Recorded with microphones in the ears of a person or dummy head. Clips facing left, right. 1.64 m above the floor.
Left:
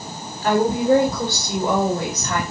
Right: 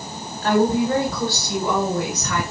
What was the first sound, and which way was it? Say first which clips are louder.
A woman speaking: even; 20° left (ahead or behind).